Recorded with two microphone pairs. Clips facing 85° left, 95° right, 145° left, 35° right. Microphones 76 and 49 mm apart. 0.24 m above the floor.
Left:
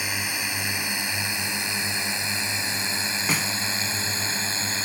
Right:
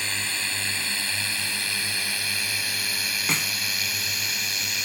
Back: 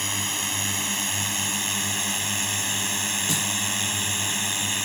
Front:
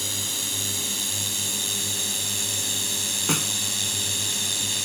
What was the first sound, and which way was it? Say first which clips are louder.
A drone: left 1 dB, back 4 dB; 155° left.